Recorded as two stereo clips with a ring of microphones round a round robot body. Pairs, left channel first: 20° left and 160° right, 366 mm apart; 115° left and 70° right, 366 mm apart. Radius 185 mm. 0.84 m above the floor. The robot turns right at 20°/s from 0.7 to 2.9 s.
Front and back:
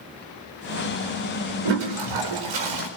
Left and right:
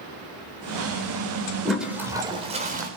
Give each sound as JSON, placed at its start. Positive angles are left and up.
{"t": 1.6, "sound": "a toilet flushing", "azimuth_deg": -160, "distance_m": 3.5}